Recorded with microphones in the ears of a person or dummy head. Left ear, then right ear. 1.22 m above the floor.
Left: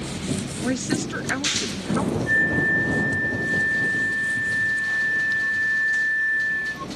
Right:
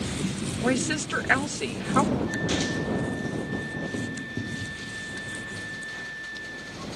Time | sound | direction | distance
0.6 | a woman speaking | 35° right (ahead or behind) | ?
2.3 | a flute | 60° left (ahead or behind) | ?